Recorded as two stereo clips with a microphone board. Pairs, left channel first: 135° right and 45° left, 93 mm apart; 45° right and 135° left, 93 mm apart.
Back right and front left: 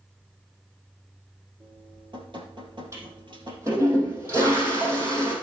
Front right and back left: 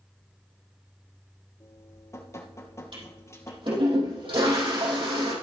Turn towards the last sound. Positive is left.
turn(degrees=105)